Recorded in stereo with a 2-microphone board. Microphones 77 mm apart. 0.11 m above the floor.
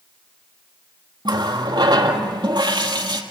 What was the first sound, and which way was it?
A running tap, 65° right (ahead or behind).